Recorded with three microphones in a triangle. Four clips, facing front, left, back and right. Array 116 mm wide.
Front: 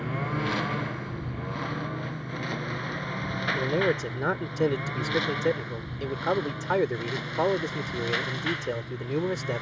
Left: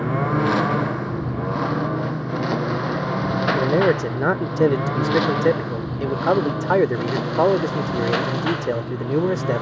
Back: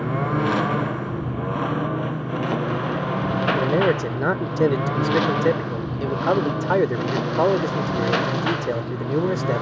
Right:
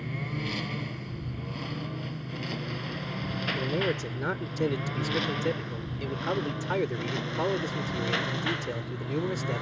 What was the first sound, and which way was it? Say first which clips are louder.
A lawn mower: left 15 dB, back 8 dB; 120° left.